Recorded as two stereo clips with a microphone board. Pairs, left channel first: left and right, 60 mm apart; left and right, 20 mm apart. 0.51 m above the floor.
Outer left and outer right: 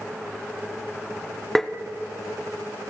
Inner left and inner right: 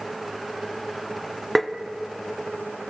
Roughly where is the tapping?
Centre.